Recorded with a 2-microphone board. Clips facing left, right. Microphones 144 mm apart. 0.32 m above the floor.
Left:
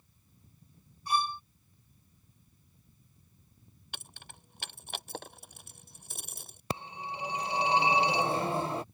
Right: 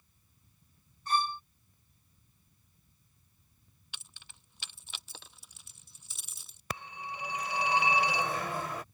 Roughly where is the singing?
No singing in this recording.